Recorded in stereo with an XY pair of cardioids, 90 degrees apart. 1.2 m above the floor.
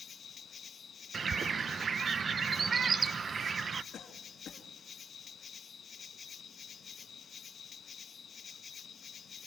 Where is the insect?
55° left, 0.9 m.